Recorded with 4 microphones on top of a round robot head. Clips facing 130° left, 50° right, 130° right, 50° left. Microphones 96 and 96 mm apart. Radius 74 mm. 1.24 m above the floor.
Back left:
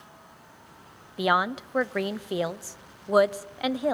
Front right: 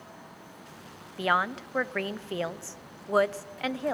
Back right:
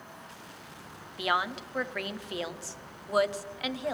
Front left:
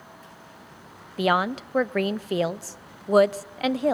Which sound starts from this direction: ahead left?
A woman speaking, at 1.2 s.